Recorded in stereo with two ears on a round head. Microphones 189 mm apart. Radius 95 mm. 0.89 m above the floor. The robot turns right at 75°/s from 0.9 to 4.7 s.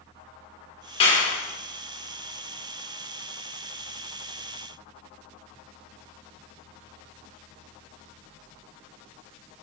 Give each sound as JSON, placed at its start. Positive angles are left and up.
{"t": 1.0, "sound": "a clap", "side_deg": 25, "distance_m": 1.9}